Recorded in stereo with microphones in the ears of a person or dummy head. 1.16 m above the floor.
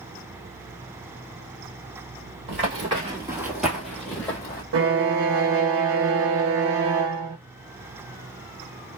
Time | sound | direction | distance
2.5 | running footsteps | 40° right (ahead or behind) | 1.4 m
4.7 | a violin | 70° right (ahead or behind) | 0.5 m